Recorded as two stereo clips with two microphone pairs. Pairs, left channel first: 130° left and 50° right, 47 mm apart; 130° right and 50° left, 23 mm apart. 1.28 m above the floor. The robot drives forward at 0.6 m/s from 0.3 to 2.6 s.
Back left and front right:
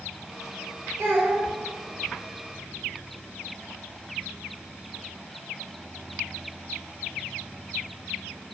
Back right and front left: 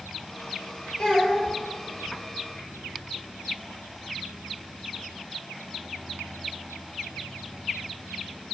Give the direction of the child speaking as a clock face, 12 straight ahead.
2 o'clock.